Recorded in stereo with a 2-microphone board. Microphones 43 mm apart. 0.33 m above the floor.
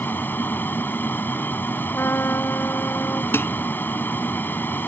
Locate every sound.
0.0 s an aircraft: 55° left (ahead or behind)
1.9 s a trumpet: 80° left
3.3 s dishes clattering: 70° left (ahead or behind)